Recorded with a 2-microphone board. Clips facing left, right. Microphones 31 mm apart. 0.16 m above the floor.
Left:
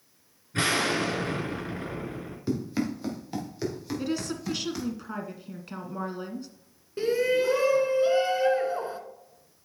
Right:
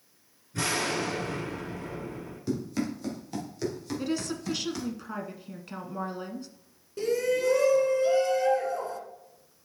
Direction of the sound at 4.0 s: 5° left (ahead or behind).